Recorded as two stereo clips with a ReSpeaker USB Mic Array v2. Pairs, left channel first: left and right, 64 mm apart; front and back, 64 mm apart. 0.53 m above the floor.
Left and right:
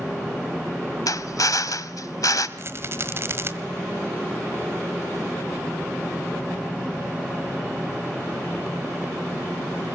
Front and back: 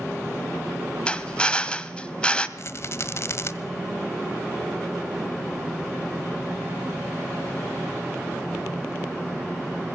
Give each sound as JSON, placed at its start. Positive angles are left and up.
{"t": 1.1, "sound": "a drill", "azimuth_deg": 75, "distance_m": 1.4}
{"t": 2.6, "sound": "a rattle", "azimuth_deg": -45, "distance_m": 1.4}